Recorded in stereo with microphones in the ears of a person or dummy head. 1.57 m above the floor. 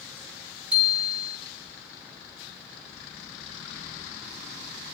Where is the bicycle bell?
5° right (ahead or behind), 6 m.